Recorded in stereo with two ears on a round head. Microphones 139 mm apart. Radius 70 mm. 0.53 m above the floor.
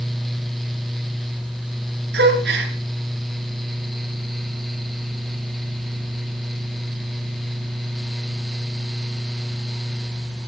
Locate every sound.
2.1 s a gasp: 75° right (ahead or behind), 7 m